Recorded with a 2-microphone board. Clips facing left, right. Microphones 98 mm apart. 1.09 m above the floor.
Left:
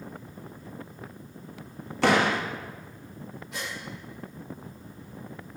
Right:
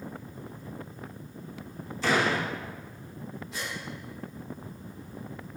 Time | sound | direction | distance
2.0 | a door slam | 70° left (ahead or behind) | 0.7 m
3.5 | a gasp | 70° left (ahead or behind) | 2.5 m